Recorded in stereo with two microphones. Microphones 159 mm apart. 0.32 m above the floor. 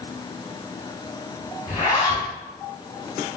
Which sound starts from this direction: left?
A zipper, at 1.7 s.